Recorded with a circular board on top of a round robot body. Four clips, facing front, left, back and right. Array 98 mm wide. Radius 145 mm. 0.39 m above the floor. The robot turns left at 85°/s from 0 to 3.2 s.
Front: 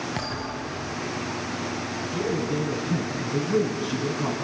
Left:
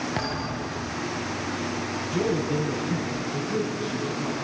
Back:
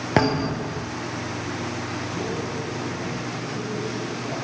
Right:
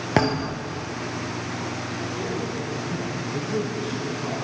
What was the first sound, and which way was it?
A thud, 140° right.